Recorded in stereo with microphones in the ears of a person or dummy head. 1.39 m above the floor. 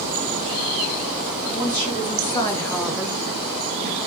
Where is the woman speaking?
45° left (ahead or behind), 1.0 m; by 4.0 s 55° right (ahead or behind), 0.8 m.